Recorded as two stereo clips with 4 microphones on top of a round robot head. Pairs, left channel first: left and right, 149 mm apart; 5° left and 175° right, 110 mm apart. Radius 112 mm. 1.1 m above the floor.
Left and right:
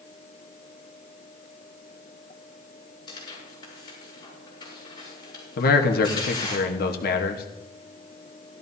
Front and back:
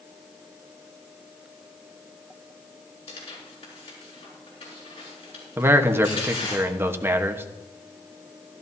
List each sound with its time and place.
3.1 s tearing paper: 30° left, 7 m
5.6 s a man speaking: 115° left, 1.2 m